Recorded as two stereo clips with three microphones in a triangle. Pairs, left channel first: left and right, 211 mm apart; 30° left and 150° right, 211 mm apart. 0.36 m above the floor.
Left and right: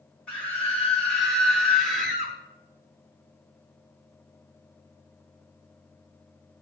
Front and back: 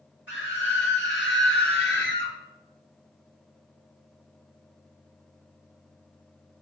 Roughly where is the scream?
Ahead.